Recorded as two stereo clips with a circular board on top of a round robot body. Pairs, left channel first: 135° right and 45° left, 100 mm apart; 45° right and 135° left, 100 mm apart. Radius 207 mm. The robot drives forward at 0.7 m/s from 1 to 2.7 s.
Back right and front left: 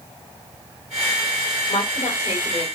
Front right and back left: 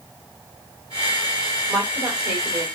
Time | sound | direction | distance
1.7 | a woman speaking | 150° right | 3 m